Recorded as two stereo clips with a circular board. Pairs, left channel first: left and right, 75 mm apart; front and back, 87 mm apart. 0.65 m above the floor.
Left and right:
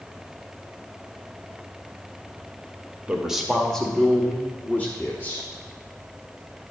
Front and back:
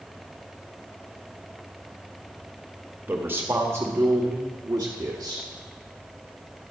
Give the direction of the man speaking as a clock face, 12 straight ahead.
5 o'clock.